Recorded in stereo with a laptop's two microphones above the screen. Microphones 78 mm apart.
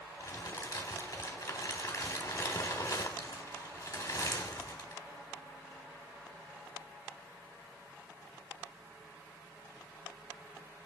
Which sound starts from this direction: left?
Crumpling, at 0.2 s.